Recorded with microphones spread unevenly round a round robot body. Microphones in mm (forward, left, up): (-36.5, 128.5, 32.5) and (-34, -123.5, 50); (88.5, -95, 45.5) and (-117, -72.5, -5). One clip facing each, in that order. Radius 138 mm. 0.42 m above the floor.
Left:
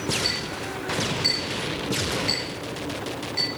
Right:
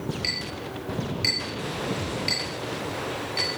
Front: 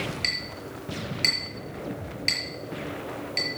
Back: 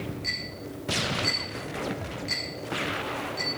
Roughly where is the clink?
Ahead.